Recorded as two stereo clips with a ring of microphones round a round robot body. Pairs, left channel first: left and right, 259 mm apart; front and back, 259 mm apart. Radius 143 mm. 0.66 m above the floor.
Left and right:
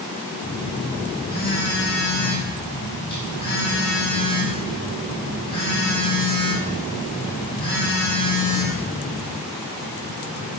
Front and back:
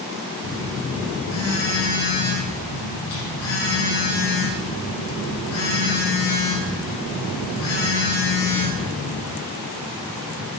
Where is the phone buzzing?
20° left, 4 m.